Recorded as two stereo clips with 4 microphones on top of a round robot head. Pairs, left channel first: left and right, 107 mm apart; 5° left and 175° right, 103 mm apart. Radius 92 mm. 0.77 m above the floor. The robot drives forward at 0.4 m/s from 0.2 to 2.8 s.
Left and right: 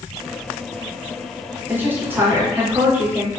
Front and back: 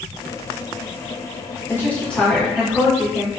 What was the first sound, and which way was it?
A woman speaking, 35° right.